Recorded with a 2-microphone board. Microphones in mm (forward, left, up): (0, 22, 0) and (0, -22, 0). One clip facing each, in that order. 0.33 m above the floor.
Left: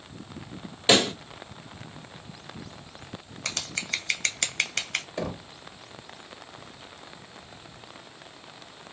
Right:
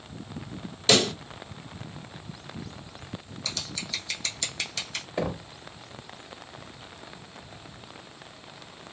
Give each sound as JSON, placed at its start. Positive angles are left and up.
{"t": 0.9, "sound": "a pop", "side_deg": 25, "distance_m": 1.1}
{"t": 3.5, "sound": "scissors", "side_deg": 60, "distance_m": 0.9}
{"t": 5.2, "sound": "knocking", "side_deg": -15, "distance_m": 0.7}